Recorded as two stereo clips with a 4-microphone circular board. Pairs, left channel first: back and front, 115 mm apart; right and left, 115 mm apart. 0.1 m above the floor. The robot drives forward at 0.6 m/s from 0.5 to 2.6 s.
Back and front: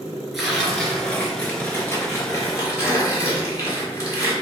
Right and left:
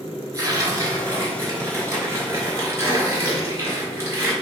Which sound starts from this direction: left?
Tearing paper, at 0.3 s.